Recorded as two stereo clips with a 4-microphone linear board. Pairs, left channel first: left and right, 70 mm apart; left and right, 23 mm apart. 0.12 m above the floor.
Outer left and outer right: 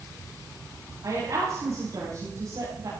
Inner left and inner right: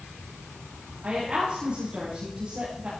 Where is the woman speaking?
55° right (ahead or behind), 9 m.